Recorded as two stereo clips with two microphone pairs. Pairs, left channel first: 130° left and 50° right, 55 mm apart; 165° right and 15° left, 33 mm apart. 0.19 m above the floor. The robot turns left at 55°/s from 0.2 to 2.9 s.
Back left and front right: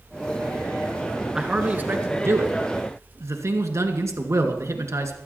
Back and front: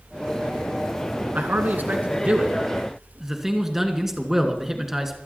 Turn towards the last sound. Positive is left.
turn(degrees=-60)